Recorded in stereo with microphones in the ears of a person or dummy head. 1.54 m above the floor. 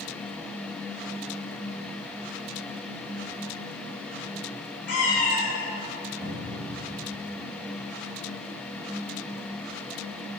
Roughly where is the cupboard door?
Centre.